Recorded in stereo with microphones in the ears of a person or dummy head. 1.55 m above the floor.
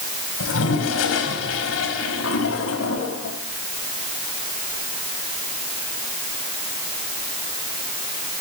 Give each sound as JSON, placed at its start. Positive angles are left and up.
{"t": 0.4, "sound": "a toilet flushing", "side_deg": 80, "distance_m": 4.5}